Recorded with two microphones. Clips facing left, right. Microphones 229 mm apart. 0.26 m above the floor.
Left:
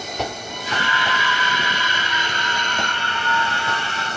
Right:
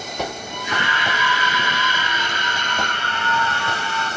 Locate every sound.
0.5 s a scream: 35° left (ahead or behind), 5 m; by 4.1 s 30° left (ahead or behind), 7.5 m